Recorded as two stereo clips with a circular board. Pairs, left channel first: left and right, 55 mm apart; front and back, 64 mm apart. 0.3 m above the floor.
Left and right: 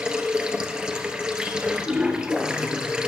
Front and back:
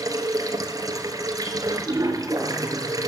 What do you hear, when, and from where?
0.0 s running water: 165° right, 1.2 m